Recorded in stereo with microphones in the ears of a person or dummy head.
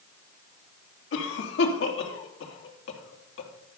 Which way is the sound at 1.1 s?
70° left (ahead or behind).